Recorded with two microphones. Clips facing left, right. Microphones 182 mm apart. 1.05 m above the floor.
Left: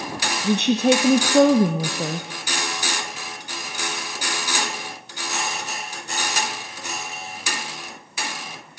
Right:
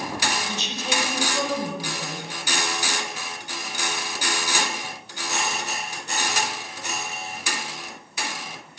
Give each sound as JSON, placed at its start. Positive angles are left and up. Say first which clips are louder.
{"t": 0.4, "sound": "a woman speaking", "louder": "left 13 dB", "side_deg": 60, "distance_m": 0.6}